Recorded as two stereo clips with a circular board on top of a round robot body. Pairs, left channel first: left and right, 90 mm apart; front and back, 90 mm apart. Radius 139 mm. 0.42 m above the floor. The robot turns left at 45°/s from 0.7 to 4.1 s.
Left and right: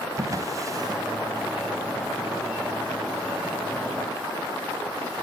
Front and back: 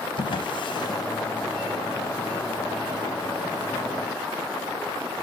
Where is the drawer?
35° right, 0.9 m; by 1.0 s 50° right, 0.9 m.